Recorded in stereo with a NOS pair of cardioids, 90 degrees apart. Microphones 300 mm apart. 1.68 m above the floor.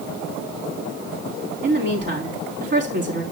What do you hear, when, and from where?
1.6 s a woman speaking: 35° right, 4 m